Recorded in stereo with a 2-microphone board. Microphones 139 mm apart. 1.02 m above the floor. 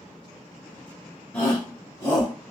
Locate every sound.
1.3 s a shout: 10° left (ahead or behind), 0.8 m; by 2.3 s 45° left (ahead or behind), 1.6 m